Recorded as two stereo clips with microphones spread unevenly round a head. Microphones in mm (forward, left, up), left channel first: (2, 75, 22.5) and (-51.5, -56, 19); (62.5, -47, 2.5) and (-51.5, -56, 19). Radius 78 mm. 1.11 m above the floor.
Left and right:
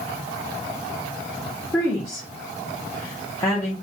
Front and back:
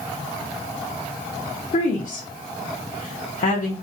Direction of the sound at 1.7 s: 5° right.